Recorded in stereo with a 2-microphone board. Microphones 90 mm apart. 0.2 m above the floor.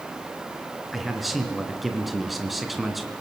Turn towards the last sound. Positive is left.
turn(degrees=0)  # may be behind; listen again after turning